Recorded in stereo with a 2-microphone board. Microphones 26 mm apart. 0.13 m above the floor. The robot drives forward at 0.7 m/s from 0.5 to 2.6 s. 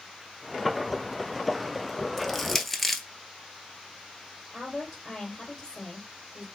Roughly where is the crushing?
Centre.